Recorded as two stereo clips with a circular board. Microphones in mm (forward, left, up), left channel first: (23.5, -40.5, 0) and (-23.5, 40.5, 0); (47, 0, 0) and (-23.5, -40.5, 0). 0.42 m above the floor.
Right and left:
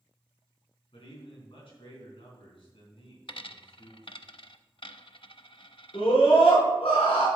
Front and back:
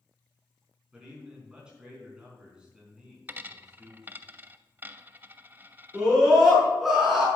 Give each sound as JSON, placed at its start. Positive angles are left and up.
{"t": 0.9, "sound": "a man speaking", "azimuth_deg": -70, "distance_m": 4.0}
{"t": 3.3, "sound": "a dropped coin", "azimuth_deg": -85, "distance_m": 0.5}
{"t": 5.9, "sound": "a scream", "azimuth_deg": -60, "distance_m": 4.5}